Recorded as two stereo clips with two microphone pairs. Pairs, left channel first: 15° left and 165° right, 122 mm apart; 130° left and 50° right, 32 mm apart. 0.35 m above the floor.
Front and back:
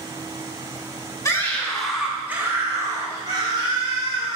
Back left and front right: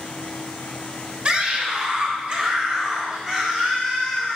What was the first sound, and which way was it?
A scream, 30° right.